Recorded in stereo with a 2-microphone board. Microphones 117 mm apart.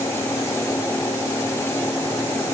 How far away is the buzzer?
No buzzer in this recording.